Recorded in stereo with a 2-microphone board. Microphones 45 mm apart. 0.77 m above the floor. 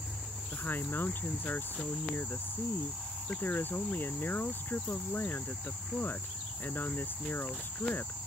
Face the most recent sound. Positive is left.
turn(degrees=50)  # may be behind; listen again after turning